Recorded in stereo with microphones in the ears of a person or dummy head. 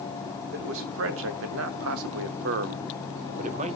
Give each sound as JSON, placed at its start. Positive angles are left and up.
{"t": 0.5, "sound": "a man speaking", "side_deg": -65, "distance_m": 2.0}